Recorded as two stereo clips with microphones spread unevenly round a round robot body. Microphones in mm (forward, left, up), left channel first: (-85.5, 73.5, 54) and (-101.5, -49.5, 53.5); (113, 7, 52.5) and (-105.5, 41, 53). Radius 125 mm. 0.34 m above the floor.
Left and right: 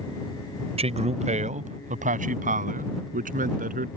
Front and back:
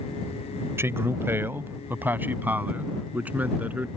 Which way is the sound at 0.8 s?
110° right.